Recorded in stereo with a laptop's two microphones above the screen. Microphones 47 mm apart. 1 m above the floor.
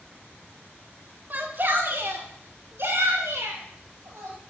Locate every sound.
1.3 s a shout: 45° right (ahead or behind), 2 m; by 4.4 s 70° right (ahead or behind), 4.5 m